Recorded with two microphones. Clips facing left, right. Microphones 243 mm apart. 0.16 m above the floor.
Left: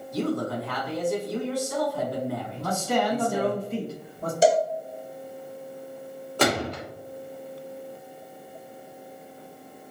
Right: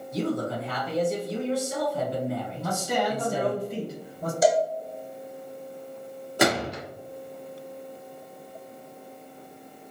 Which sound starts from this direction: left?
A cowbell, at 4.4 s.